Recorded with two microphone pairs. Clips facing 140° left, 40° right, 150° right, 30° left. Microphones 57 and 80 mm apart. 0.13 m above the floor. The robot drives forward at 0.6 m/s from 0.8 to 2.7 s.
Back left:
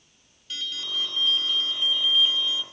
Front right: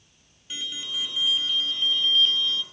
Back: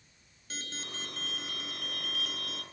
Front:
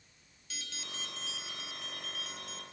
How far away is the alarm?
About 1.7 m.